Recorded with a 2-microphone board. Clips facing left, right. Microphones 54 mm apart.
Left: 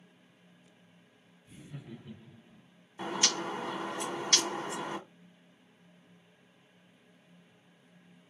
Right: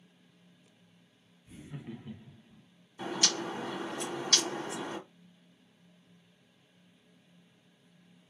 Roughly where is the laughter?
Right.